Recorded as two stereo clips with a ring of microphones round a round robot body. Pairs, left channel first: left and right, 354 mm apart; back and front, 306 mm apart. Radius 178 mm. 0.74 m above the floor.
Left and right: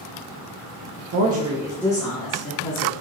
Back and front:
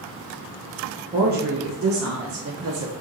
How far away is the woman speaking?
About 0.7 m.